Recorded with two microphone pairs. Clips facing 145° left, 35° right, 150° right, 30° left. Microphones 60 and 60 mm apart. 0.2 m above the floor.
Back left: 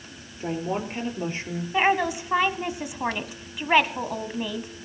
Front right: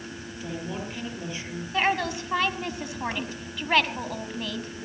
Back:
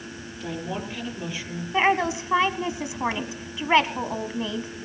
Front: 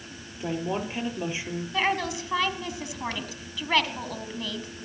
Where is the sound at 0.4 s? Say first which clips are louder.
Back left 6 dB, front 3 dB; 95° left, 4.5 m.